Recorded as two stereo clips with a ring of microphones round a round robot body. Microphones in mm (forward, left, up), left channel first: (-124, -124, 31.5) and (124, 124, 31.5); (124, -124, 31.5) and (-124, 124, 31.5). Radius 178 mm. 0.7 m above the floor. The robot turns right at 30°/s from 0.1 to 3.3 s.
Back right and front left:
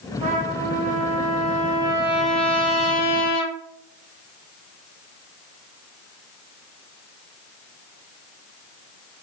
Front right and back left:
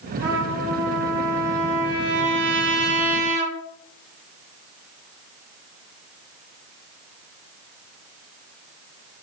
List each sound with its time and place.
0.2 s a trumpet: 75° left, 2 m; by 3.5 s 165° left, 2 m